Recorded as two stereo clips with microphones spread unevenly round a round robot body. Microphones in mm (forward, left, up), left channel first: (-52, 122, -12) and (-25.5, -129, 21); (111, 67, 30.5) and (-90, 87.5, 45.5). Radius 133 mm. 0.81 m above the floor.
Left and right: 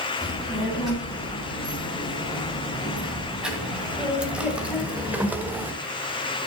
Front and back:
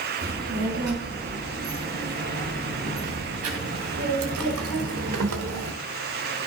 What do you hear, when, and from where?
0.2 s a child speaking: 170° right, 6 m; by 5.7 s 165° right, 1.3 m